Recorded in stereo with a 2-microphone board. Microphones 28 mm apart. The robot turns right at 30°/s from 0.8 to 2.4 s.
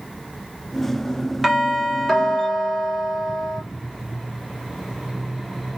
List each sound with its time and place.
1.4 s a doorbell: 10° right (ahead or behind), 1.0 m; by 3.6 s 5° left (ahead or behind), 1.0 m